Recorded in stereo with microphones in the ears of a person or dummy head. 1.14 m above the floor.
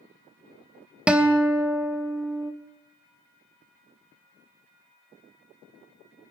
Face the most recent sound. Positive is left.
turn(degrees=-5)  # may be behind; listen again after turning